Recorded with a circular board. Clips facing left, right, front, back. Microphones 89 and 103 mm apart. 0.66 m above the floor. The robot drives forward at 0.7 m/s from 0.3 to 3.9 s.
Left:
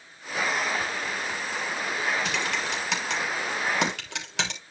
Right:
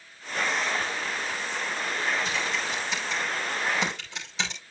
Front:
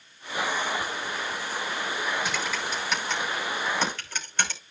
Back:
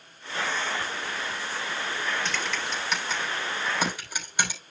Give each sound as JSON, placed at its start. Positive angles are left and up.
{"t": 2.2, "sound": "typing on a keyboard", "azimuth_deg": 80, "distance_m": 3.0}